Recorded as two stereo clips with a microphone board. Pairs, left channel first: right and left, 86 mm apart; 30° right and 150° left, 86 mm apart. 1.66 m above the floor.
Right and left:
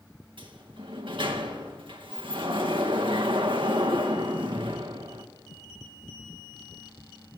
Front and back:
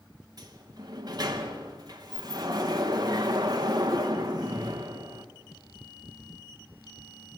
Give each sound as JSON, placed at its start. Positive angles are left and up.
{"t": 0.4, "sound": "a sliding door", "azimuth_deg": 110, "distance_m": 2.5}